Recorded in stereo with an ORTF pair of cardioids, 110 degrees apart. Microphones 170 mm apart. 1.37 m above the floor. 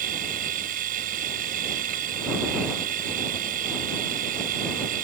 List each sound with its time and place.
0.0 s a machine running: 60° right